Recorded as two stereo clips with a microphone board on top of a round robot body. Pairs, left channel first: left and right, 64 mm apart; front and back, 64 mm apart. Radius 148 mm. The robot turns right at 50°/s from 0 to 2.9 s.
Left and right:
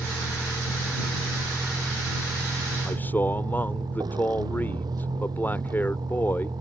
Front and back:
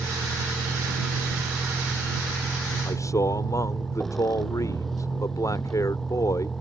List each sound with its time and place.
0.0 s a vehicle: 130° left; by 6.6 s 85° right
2.9 s a man speaking: 30° left; by 6.5 s 35° left